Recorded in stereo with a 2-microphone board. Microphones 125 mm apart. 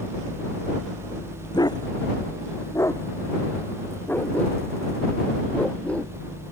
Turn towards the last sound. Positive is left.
turn(degrees=10)  # may be behind; listen again after turning